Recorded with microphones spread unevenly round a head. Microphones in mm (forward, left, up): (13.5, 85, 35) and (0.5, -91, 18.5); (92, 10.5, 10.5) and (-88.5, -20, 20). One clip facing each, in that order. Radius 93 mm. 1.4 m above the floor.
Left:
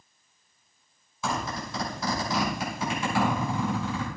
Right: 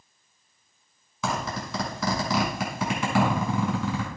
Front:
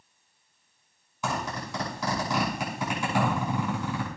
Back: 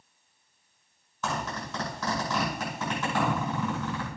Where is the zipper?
70° right, 6 m.